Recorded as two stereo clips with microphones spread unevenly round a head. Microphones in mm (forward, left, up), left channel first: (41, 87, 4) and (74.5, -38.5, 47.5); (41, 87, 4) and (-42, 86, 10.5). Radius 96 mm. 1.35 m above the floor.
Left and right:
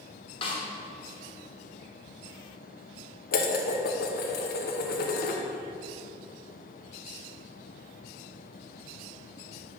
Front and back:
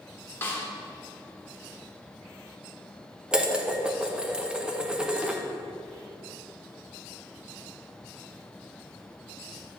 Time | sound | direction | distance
0.4 | a snare drum | 50° left | 1.2 m
3.3 | dishes clattering | 105° left | 0.7 m